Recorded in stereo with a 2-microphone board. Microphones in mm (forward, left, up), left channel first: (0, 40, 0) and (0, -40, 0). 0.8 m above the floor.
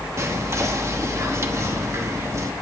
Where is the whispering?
35° right (ahead or behind), 1.1 m.